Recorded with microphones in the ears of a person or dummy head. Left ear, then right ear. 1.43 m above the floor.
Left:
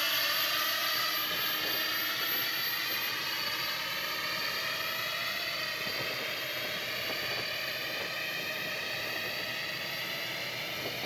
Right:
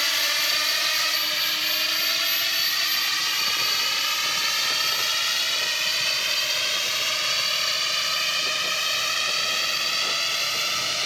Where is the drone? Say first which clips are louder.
Right 7 dB; 25° right (ahead or behind); by 11.1 s 55° right (ahead or behind).